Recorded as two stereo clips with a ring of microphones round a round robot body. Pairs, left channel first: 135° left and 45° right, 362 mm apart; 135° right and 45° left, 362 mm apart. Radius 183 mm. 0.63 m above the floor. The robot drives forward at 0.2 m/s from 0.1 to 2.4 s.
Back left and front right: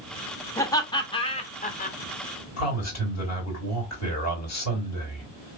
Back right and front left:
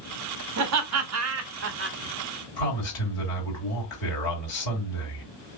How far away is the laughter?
About 0.9 m.